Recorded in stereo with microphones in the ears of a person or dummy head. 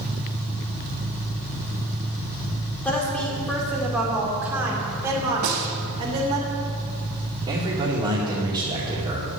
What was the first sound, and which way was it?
A woman speaking, 10° left (ahead or behind).